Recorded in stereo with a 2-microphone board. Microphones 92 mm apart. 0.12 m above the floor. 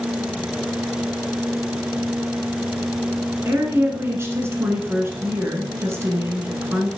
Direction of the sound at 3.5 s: 30° right (ahead or behind).